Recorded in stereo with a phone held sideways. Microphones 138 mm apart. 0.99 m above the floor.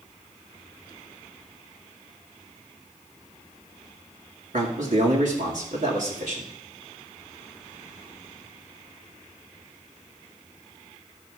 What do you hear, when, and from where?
4.5 s a man speaking: 70° right (ahead or behind), 2.0 m